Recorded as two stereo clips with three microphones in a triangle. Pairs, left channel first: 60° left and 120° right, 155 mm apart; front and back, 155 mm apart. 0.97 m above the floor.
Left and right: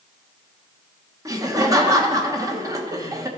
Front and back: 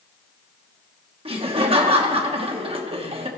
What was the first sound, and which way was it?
Laughter, 170° right.